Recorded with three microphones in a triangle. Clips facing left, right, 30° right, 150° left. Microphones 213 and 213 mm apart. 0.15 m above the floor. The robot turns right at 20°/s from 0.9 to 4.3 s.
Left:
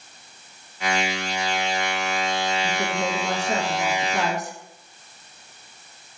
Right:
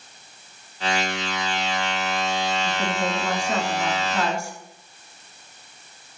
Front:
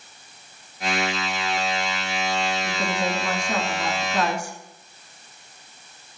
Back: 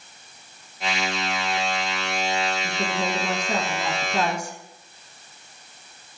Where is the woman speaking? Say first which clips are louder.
Even, front 1 dB; 95° left, 1.4 m; by 4.5 s 130° left, 1.4 m.